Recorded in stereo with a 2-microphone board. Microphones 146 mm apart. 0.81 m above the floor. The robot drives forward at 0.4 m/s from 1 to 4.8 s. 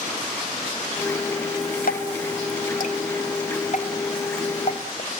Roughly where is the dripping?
Left.